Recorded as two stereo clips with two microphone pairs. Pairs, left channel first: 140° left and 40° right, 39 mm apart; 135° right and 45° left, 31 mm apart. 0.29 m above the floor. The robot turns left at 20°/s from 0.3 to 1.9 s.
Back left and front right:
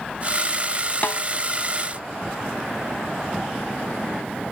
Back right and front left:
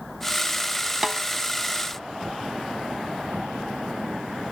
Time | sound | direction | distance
1.0 | a snare drum | 115° left | ?